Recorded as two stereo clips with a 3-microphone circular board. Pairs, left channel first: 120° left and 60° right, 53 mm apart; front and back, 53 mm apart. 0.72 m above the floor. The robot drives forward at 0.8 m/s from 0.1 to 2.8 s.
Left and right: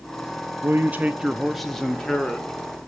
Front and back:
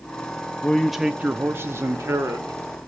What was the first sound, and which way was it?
A man speaking, 55° right.